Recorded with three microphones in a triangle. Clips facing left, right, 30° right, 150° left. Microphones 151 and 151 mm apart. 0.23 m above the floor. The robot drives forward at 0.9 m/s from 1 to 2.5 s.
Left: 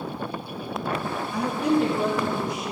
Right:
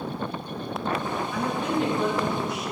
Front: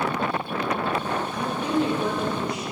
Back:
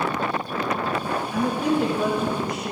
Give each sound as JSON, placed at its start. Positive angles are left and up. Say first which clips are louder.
{"t": 1.3, "sound": "a woman speaking", "louder": "left 6 dB, back 5 dB", "azimuth_deg": 145, "distance_m": 2.5}